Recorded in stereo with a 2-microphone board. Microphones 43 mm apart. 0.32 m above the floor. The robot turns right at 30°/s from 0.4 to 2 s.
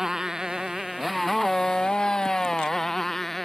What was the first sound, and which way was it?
A motorcycle, 10° right (ahead or behind).